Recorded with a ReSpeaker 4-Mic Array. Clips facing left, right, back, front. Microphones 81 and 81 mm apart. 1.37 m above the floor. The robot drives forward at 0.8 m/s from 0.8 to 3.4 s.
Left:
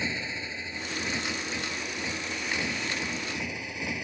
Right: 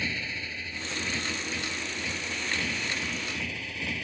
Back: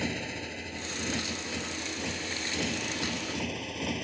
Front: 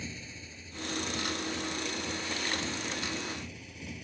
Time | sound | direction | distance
0.0 | a motorcycle | 160° left | ?